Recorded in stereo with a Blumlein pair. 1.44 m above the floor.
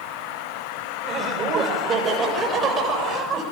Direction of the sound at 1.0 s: 25° right.